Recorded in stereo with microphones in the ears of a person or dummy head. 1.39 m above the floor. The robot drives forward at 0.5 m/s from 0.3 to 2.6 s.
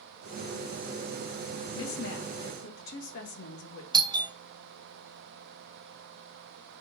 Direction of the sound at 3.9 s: 20° right (ahead or behind).